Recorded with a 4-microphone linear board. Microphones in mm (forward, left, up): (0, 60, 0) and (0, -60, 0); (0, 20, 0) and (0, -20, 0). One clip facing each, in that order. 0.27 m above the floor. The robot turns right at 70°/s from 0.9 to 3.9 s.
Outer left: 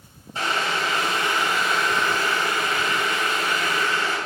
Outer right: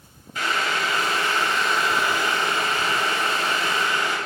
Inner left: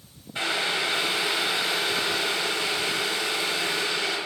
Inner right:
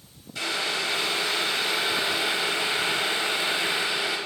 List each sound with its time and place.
0.3 s boiling: 120° left, 0.8 m; by 4.2 s 30° right, 0.8 m